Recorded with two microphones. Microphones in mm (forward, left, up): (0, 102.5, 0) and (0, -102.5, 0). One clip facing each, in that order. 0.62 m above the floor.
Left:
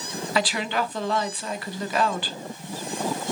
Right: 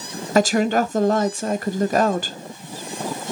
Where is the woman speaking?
50° right (ahead or behind), 0.8 m.